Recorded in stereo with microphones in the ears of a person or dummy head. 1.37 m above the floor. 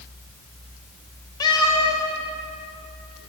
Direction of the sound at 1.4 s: 25° left (ahead or behind).